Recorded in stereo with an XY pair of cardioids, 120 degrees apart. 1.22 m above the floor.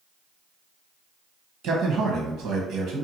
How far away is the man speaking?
About 1.0 m.